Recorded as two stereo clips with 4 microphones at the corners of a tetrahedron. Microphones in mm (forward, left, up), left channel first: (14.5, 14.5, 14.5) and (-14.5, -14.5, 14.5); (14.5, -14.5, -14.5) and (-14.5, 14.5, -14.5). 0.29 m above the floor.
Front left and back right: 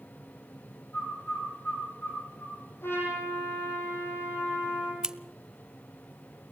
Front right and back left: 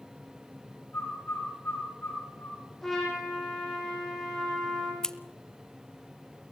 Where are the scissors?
90° right, 0.8 m.